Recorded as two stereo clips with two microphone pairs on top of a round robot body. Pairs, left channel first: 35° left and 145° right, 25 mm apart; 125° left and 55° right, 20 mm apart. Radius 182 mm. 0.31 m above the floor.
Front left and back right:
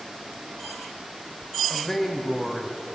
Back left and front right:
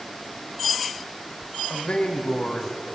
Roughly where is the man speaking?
Behind left.